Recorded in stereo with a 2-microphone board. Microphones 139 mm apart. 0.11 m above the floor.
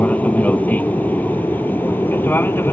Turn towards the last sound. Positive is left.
turn(degrees=15)  # may be behind; listen again after turning